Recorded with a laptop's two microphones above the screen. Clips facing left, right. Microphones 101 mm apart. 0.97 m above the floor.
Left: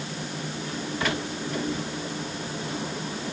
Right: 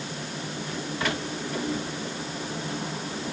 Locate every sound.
Only background noise.